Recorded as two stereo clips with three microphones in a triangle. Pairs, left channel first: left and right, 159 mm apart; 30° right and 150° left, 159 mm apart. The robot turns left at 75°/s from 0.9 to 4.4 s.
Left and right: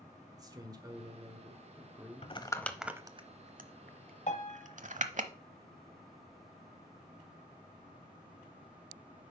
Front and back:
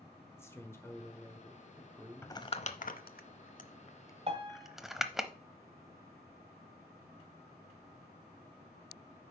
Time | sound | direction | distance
0.4 | a man speaking | 80° right | 1.4 m
2.2 | crumpling | 40° left | 0.7 m
4.3 | a piano | 110° left | 1.5 m